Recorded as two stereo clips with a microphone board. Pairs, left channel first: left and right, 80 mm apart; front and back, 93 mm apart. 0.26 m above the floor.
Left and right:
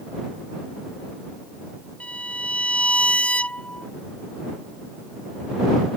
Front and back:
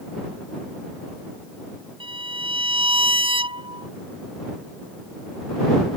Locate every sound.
2.0 s a violin: 165° left